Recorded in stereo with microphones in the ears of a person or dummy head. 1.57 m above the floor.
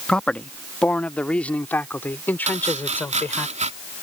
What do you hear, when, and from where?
0.1 s a man speaking: 5° left (ahead or behind); by 3.5 s 10° left (ahead or behind)
2.5 s chopping: 35° right (ahead or behind)